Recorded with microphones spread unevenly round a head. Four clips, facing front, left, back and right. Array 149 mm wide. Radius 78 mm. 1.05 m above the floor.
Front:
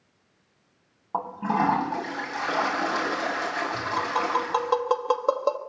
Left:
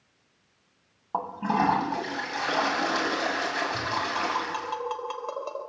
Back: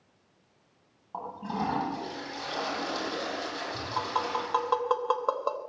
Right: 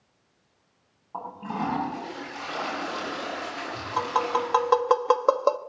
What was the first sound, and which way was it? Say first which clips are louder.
A toilet flushing: left 6 dB, front 8 dB; 45° left.